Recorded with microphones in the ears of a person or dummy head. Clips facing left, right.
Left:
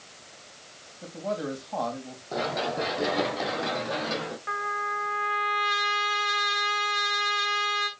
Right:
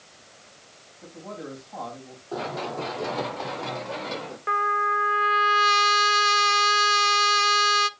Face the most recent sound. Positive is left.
turn(degrees=-50)  # may be behind; listen again after turning